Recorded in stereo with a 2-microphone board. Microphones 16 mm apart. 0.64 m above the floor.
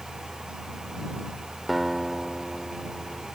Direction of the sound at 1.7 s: Centre (ahead or behind).